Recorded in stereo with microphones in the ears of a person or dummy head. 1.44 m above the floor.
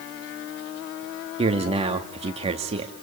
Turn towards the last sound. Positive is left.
turn(degrees=-25)  # may be behind; listen again after turning